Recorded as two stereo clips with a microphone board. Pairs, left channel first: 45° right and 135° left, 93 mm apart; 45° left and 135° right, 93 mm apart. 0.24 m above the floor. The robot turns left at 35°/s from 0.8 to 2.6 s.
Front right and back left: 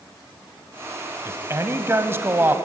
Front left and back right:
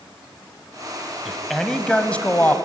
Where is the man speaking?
140° left, 1.4 m; by 2.5 s 95° left, 1.4 m.